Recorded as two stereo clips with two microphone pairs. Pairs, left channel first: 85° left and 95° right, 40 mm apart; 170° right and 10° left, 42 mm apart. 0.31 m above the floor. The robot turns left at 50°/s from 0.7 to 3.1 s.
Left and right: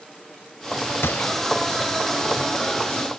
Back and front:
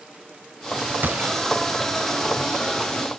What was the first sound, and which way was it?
A gunshot, 60° left.